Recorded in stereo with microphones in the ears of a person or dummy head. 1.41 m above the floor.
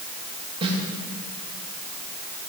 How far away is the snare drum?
About 2 m.